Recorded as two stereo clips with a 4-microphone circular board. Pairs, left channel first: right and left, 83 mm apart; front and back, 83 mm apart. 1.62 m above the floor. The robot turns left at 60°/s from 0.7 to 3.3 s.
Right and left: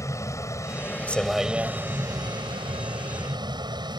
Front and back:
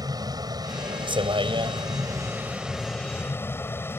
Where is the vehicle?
140° right; by 4.0 s 60° left.